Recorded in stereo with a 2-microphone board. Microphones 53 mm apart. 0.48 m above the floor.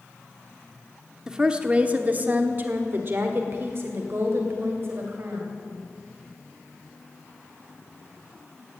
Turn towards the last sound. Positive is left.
turn(degrees=-50)  # may be behind; listen again after turning